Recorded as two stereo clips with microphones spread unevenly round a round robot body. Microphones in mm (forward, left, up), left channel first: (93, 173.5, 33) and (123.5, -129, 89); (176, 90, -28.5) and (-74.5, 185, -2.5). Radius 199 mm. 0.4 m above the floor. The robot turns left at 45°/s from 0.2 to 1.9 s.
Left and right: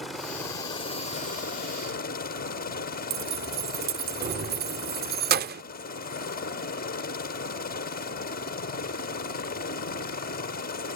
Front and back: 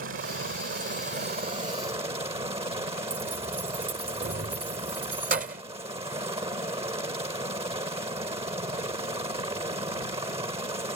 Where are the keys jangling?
145° right.